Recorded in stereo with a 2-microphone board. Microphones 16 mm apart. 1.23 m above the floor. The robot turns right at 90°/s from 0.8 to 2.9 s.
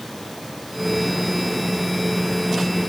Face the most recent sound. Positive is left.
No sound to turn to.